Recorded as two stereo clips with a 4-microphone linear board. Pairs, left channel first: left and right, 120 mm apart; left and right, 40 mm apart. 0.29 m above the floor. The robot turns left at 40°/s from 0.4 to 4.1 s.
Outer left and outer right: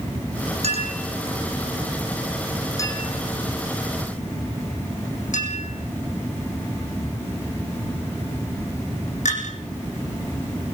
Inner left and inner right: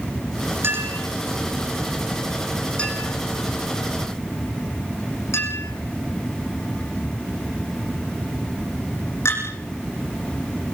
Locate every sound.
0.6 s a clink: 60° right (ahead or behind), 8 m; by 10.8 s 75° left (ahead or behind), 8 m